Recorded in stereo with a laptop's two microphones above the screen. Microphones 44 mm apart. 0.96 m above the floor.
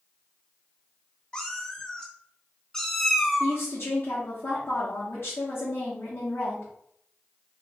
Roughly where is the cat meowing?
Centre.